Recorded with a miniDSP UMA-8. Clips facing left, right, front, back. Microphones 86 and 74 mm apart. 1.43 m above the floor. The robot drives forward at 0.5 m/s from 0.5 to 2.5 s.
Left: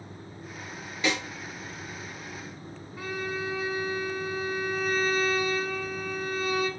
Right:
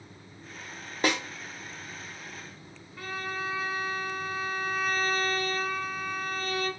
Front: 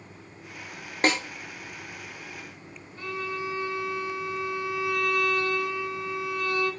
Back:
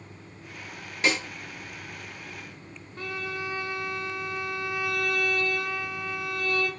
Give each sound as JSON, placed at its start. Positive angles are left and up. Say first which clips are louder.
{"t": 1.0, "sound": "a snare drum", "louder": "right 1 dB, front 2 dB", "azimuth_deg": -45, "distance_m": 0.6}
{"t": 3.0, "sound": "a violin", "louder": "left 2 dB, front 1 dB", "azimuth_deg": 170, "distance_m": 0.7}